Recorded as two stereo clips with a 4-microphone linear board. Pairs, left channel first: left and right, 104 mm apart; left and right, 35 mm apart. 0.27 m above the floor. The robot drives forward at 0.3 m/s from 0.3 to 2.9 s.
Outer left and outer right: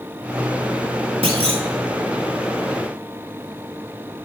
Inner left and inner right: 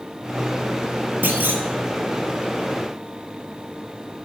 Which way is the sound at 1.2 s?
85° right.